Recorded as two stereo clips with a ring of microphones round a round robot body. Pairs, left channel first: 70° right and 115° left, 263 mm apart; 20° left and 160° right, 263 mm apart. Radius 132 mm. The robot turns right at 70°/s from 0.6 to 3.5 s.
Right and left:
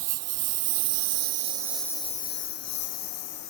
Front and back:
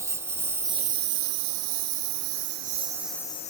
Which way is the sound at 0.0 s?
125° left.